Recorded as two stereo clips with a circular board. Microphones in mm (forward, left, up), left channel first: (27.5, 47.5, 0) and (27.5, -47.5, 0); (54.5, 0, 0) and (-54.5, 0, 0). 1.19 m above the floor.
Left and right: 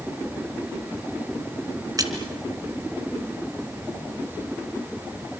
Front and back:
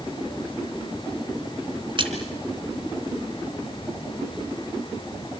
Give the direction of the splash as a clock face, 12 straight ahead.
5 o'clock.